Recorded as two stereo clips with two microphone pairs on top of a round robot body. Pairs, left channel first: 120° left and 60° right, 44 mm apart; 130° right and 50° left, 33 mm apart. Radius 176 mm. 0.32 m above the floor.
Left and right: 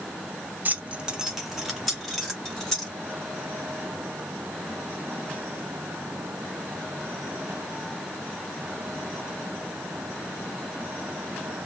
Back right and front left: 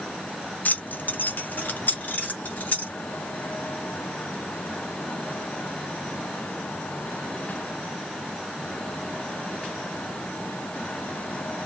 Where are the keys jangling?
110° right, 0.9 m; by 2.9 s 165° right, 2.5 m.